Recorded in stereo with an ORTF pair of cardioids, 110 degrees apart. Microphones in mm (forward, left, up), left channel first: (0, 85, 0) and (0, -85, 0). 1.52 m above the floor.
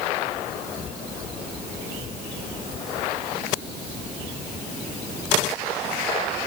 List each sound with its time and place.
Only background noise.